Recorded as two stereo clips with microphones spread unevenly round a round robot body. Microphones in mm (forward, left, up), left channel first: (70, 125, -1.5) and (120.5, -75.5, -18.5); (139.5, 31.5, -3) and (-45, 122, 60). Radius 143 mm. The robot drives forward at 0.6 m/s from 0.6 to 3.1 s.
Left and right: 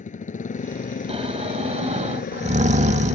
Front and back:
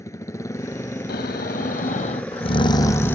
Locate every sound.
0.0 s a motorcycle: 50° left; by 3.2 s 65° left
1.1 s snoring: 25° right; by 3.2 s 70° right